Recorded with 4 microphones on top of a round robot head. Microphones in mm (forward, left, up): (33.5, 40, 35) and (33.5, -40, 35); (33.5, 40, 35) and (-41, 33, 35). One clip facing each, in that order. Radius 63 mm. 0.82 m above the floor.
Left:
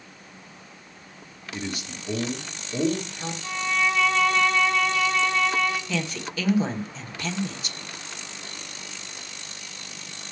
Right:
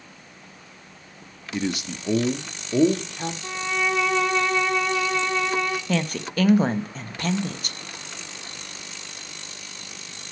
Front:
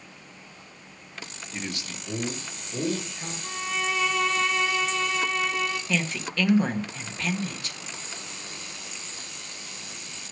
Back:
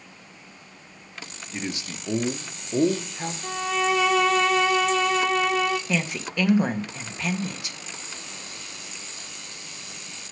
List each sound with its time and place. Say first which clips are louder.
1.5 s a man speaking: right 6 dB, back 3 dB; 95° right, 0.9 m; by 3.3 s 120° right, 1.7 m
3.4 s a violin: left 1 dB, back 6 dB; 165° right, 1.7 m
5.9 s a woman speaking: right 4 dB, back 1 dB; 100° right, 1.2 m